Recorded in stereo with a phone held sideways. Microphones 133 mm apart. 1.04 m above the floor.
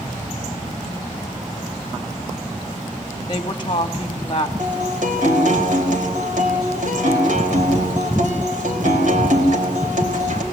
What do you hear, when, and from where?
3.3 s a woman speaking: 35° left (ahead or behind), 1.5 m
4.6 s a guitar: 65° right (ahead or behind), 4.5 m